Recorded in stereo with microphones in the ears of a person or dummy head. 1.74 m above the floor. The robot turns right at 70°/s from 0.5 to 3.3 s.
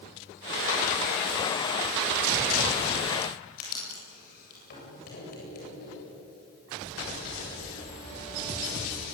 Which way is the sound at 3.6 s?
55° left (ahead or behind).